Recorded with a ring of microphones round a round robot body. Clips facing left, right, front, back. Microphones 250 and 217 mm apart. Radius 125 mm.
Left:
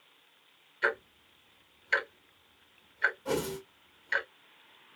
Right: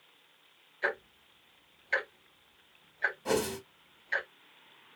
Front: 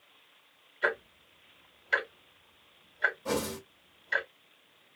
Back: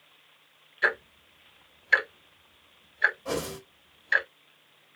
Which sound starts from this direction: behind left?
Ticking, at 0.8 s.